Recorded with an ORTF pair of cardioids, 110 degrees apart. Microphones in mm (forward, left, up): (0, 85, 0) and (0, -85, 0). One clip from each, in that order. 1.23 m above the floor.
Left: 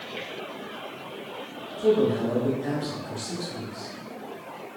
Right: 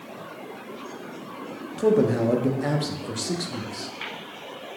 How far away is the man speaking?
About 0.6 m.